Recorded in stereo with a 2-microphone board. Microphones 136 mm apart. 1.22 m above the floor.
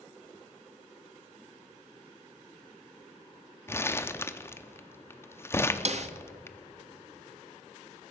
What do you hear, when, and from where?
3.7 s crumpling: 20° left (ahead or behind), 0.5 m
5.8 s a snare drum: 55° right (ahead or behind), 0.6 m